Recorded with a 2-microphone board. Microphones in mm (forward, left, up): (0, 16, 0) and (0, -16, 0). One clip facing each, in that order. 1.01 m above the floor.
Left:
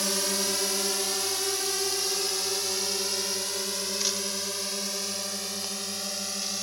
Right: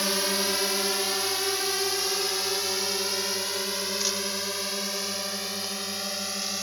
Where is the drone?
20° right (ahead or behind).